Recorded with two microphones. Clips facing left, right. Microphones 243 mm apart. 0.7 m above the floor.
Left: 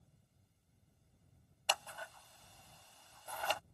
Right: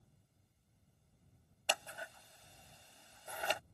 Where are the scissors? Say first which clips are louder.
Right 1 dB; 20° right (ahead or behind).